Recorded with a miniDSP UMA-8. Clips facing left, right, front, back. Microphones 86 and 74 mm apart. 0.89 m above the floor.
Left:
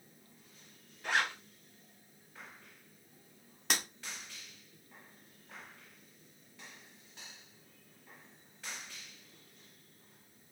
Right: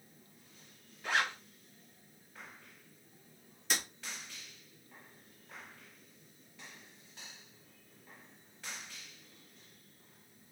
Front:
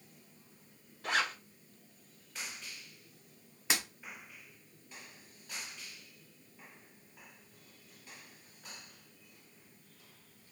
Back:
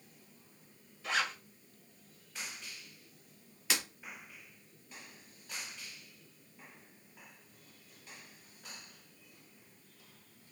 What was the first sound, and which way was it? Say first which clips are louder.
A zipper: even, front 1 dB; 5° left.